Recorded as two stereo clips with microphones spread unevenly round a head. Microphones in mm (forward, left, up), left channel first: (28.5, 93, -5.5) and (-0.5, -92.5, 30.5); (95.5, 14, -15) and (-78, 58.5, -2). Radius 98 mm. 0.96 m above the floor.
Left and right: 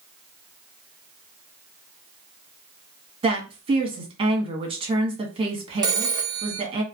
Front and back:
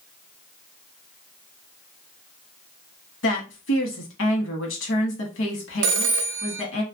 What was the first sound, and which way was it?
A woman speaking, 35° right.